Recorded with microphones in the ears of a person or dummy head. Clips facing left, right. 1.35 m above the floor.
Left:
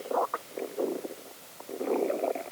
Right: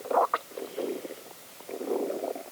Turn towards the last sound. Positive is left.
No sound to turn to.